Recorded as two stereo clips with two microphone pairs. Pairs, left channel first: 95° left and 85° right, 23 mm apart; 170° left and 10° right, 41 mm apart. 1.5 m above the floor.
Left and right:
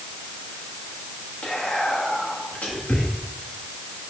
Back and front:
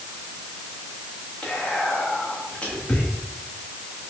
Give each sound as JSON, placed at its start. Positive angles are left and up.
{"t": 1.4, "sound": "whispering", "azimuth_deg": 105, "distance_m": 1.2}